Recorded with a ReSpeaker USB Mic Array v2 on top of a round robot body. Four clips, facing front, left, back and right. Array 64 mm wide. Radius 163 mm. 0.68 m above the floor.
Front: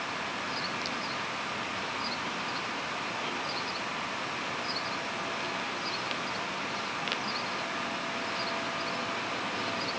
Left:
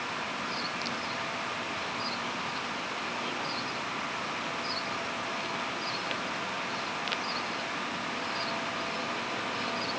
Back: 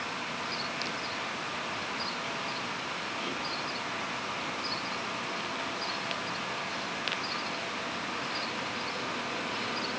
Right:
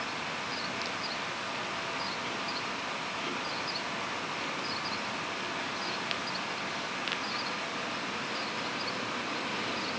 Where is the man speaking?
I don't hear a man speaking.